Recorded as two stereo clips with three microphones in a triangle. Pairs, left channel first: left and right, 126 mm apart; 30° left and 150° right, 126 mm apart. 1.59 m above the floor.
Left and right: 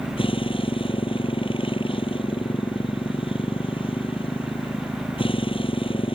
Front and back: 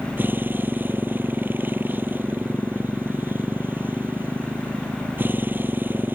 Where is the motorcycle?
135° left.